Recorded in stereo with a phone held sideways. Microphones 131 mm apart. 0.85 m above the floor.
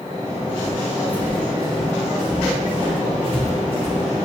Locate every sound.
0.6 s footsteps: 25° left (ahead or behind), 2.5 m; by 4.2 s 25° right (ahead or behind), 5 m